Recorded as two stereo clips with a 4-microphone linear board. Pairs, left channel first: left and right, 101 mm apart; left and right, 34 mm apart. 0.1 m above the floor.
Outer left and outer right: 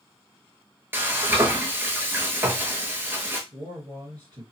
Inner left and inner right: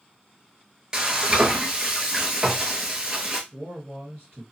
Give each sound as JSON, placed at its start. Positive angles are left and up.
{"t": 0.9, "sound": "frying", "side_deg": -20, "distance_m": 0.6}
{"t": 3.5, "sound": "a man speaking", "side_deg": -50, "distance_m": 2.0}